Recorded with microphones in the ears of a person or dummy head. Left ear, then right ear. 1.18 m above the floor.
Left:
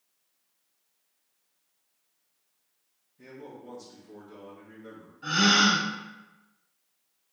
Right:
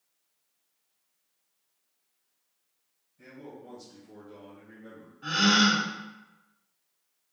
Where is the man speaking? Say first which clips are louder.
Left 1 dB; 20° right (ahead or behind), 1.8 m; by 5.1 s 10° left (ahead or behind), 0.7 m.